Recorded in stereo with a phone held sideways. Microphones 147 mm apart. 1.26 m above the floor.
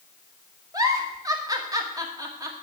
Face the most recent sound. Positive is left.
turn(degrees=-25)  # may be behind; listen again after turning